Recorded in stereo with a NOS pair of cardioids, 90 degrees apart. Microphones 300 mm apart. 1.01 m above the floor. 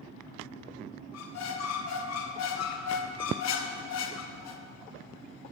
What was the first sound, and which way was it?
A squeak, 65° left.